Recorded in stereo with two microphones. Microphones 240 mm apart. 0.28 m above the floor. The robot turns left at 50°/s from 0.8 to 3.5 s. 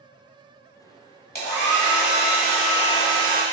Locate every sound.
1.4 s a hair dryer: 115° left, 1.2 m; by 3.4 s 10° left, 1.2 m